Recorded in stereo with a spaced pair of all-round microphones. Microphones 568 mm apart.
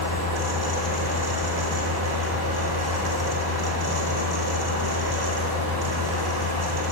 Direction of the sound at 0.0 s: 40° right (ahead or behind).